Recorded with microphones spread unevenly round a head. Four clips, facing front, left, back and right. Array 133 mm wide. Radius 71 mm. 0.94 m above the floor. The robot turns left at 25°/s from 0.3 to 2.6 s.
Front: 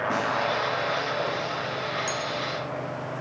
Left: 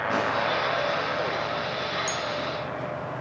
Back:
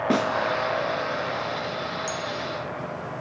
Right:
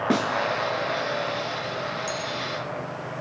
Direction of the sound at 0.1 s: 130° right.